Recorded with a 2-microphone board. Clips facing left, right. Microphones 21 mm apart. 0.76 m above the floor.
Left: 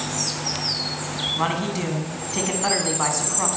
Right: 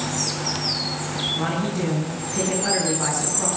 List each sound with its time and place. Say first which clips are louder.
1.4 s a man speaking: even; 40° left (ahead or behind), 7.5 m